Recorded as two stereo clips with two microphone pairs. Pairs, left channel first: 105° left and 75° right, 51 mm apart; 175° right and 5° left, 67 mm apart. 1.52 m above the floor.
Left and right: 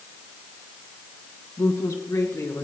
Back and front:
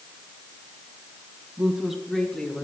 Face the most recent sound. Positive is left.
turn(degrees=110)